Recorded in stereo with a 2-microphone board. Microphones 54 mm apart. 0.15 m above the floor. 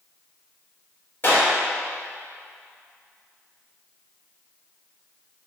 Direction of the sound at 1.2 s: 45° left (ahead or behind).